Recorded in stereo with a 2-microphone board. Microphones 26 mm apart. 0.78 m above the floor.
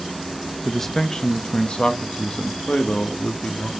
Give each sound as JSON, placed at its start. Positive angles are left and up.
{"t": 0.7, "sound": "a man speaking", "side_deg": 5, "distance_m": 0.7}